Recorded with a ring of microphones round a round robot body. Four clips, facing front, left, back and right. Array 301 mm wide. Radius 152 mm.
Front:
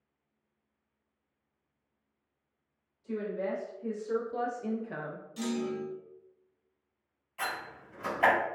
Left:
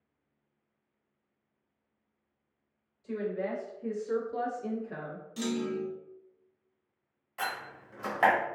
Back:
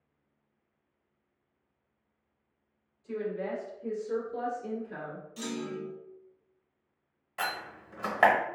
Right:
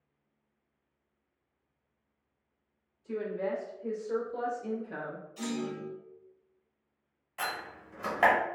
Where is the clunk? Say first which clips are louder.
Left 4 dB, front 4 dB; 85° left, 0.6 m.